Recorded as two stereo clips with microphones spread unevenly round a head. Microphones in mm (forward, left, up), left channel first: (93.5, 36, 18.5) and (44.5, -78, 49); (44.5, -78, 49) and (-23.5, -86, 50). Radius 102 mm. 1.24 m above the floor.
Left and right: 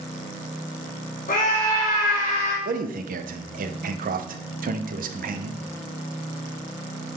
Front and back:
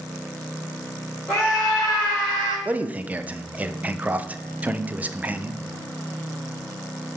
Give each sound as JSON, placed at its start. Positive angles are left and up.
{"t": 1.3, "sound": "a scream", "azimuth_deg": 100, "distance_m": 3.0}
{"t": 2.6, "sound": "a man speaking", "azimuth_deg": -105, "distance_m": 0.7}